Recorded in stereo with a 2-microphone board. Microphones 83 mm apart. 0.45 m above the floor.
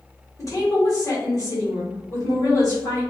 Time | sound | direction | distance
0.4 | a woman speaking | 40° left (ahead or behind) | 1.4 m